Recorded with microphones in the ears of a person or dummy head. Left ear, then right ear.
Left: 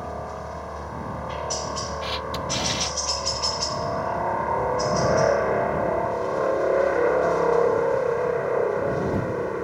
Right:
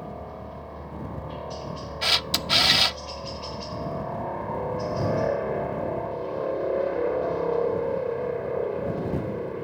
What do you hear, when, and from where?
0.0 s a helicopter: 65° left (ahead or behind); by 9.6 s 55° left (ahead or behind)
2.0 s a camera shutter: 45° right (ahead or behind)